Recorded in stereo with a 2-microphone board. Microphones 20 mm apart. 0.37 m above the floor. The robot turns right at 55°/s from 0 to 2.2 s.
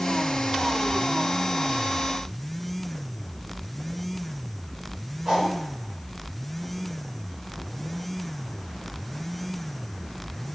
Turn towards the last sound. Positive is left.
turn(degrees=-40)  # may be behind; listen again after turning